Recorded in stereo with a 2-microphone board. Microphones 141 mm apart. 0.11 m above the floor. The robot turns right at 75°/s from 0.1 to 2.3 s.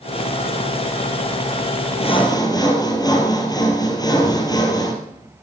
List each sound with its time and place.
2.0 s sawing: 45° left (ahead or behind), 2.5 m; by 4.9 s 30° left (ahead or behind), 2.5 m